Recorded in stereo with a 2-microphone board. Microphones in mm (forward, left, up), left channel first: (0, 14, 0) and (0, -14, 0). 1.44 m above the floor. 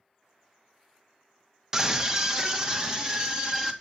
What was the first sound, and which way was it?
A scream, 15° right (ahead or behind).